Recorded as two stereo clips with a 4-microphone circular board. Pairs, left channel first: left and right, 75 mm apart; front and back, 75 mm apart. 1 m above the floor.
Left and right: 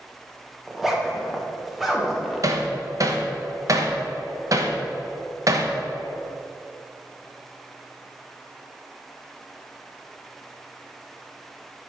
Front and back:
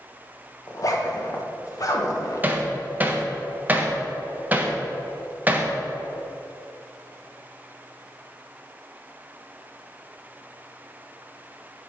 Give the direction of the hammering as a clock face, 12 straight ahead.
4 o'clock.